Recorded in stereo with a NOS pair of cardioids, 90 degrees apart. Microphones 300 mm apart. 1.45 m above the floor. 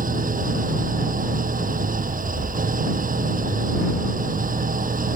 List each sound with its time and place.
0.0 s an engine running: 25° right